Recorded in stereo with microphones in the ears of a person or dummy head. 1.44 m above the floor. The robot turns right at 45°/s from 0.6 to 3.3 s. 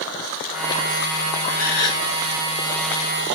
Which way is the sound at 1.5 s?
10° left (ahead or behind).